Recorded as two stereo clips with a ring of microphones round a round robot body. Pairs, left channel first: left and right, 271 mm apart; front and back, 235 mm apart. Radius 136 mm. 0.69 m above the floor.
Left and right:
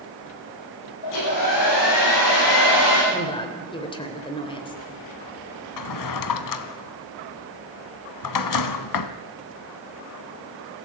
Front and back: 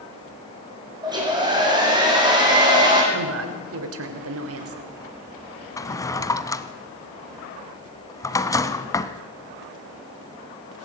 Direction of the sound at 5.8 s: 75° left.